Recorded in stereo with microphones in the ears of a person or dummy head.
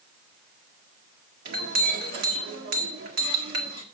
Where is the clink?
55° right (ahead or behind), 1.9 m.